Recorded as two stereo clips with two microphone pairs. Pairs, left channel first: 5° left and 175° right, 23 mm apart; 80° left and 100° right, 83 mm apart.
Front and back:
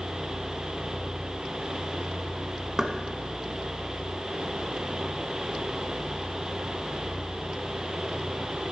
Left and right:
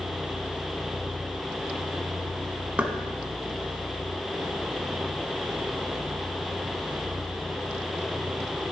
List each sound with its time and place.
2.8 s knocking: 150° right, 1.1 m